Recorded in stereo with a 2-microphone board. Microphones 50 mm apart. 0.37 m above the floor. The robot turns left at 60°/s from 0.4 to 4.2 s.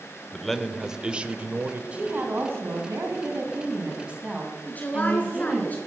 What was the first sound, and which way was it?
A man speaking, 10° left.